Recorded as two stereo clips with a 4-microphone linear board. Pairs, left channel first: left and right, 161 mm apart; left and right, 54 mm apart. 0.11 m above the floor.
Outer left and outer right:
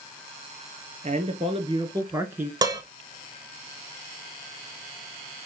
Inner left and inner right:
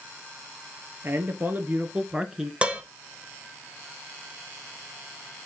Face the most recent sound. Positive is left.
turn(degrees=-25)  # may be behind; listen again after turning